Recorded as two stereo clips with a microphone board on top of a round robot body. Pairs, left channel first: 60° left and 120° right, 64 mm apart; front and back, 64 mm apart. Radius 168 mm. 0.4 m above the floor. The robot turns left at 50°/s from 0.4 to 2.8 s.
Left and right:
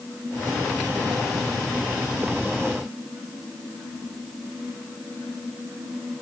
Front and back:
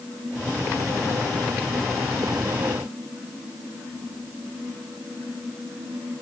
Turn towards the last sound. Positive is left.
No sound to turn to.